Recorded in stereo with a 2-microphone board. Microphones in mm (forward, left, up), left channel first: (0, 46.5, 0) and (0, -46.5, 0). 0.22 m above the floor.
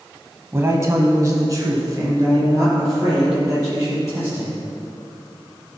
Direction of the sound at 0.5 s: 25° right (ahead or behind).